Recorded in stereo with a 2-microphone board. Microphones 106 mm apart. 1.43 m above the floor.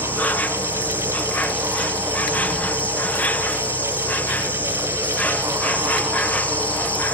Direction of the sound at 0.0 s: 15° left (ahead or behind).